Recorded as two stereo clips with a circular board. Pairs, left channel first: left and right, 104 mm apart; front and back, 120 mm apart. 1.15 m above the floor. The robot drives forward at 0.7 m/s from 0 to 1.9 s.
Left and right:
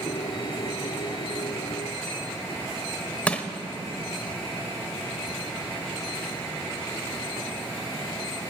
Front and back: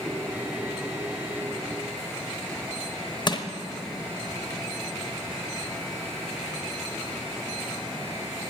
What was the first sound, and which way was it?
Crushing, 20° left.